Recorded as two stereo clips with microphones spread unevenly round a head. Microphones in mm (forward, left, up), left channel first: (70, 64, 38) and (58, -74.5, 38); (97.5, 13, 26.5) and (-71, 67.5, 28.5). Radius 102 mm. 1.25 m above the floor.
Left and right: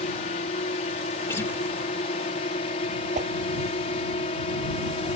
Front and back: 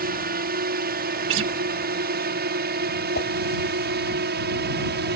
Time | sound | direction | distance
0.0 | a drone | 135° left | ?
1.3 | a guitar | 165° left | ?
3.1 | a whoosh | 65° right | ?